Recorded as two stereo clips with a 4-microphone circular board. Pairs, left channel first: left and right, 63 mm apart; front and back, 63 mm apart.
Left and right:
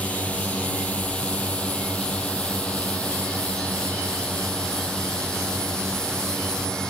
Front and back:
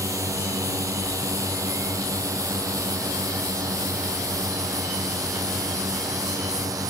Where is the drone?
155° left; by 6.9 s 165° left.